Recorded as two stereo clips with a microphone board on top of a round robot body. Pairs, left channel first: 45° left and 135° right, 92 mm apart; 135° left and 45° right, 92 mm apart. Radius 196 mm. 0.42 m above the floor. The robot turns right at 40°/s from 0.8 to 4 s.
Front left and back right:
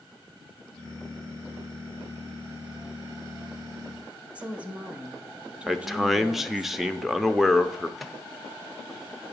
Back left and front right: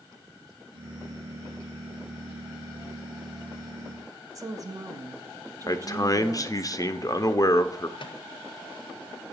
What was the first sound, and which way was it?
A woman speaking, 65° right.